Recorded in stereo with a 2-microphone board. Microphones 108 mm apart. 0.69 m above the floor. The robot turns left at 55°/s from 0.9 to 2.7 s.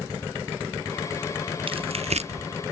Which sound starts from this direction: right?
Tearing paper, at 1.7 s.